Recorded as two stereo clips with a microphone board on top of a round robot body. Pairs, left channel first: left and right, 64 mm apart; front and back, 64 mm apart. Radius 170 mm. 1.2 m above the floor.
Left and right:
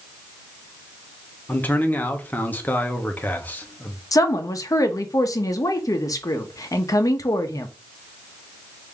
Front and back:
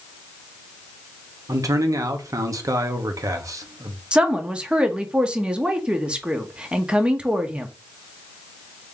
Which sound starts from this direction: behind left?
A man speaking, at 1.5 s.